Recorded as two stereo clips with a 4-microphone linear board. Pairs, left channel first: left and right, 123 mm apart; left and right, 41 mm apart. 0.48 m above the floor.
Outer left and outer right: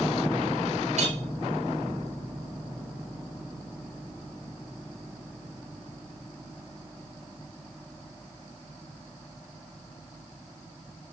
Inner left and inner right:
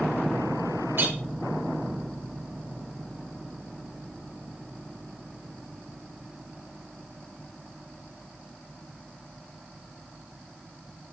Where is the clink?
65° right (ahead or behind), 2.5 m.